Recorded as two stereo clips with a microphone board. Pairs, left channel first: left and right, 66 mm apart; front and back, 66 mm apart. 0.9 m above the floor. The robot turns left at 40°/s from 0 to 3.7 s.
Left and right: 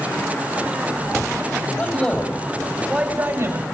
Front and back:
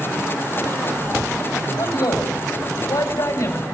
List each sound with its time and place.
1.8 s a man speaking: 25° left, 6 m; by 3.6 s 50° right, 6 m